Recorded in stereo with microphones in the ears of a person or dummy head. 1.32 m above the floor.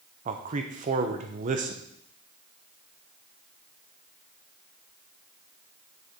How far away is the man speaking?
About 0.8 m.